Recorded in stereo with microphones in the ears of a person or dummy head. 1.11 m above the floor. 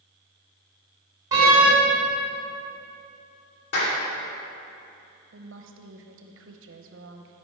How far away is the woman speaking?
About 0.9 m.